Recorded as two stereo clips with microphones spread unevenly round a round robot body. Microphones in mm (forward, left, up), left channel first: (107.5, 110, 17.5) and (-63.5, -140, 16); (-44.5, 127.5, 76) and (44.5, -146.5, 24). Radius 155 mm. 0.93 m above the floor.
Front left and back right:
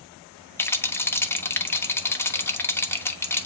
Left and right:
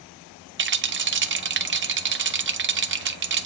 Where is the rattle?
25° right, 1.1 m.